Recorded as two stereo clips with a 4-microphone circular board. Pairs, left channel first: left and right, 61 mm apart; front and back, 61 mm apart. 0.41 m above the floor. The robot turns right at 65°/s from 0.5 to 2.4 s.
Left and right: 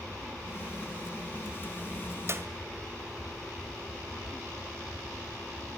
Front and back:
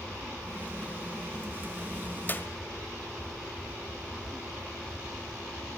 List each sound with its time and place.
2.3 s a clap: 55° right, 1.7 m; by 2.5 s 45° right, 1.7 m